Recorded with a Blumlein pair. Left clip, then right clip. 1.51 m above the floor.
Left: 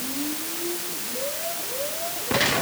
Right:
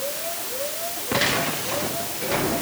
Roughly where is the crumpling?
No crumpling in this recording.